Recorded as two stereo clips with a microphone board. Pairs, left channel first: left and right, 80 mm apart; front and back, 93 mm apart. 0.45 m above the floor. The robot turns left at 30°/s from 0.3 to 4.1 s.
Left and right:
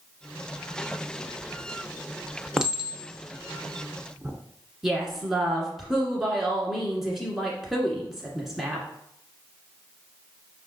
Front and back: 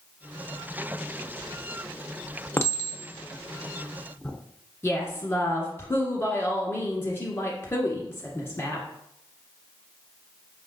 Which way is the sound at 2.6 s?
20° right.